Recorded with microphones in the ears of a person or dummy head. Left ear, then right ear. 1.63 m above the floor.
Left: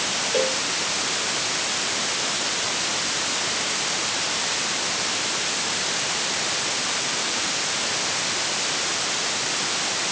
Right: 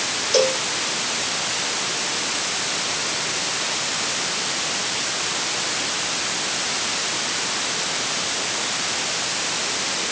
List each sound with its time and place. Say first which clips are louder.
0.3 s a cowbell: right 6 dB; 45° right (ahead or behind)